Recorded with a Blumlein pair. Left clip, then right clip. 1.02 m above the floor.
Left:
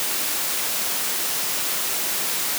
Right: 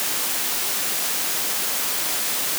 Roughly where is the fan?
No fan in this recording.